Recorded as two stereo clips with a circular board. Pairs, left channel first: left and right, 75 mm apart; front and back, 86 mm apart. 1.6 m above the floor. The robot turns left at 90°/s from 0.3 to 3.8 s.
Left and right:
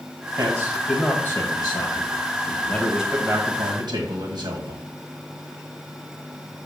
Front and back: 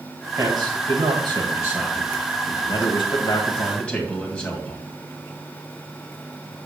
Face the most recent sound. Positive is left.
turn(degrees=-75)